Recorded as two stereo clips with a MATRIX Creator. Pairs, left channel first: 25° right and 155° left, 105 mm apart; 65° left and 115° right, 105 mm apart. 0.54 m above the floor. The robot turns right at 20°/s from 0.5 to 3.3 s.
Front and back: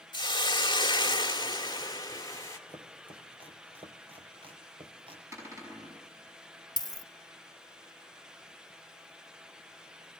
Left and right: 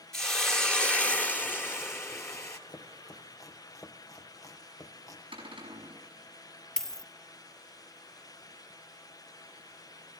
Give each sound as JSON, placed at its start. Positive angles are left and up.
{"t": 0.1, "sound": "a hiss", "azimuth_deg": -15, "distance_m": 1.7}
{"t": 2.7, "sound": "chopping", "azimuth_deg": 115, "distance_m": 2.0}
{"t": 5.3, "sound": "a cupboard door", "azimuth_deg": -140, "distance_m": 5.5}
{"t": 6.8, "sound": "a dropped coin", "azimuth_deg": -15, "distance_m": 0.6}